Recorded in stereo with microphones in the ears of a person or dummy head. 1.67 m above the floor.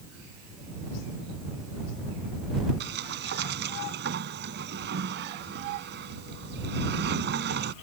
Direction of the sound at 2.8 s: 65° right (ahead or behind).